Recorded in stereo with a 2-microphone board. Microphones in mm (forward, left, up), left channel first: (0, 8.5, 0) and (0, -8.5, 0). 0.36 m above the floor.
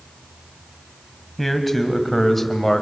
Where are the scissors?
I don't hear scissors.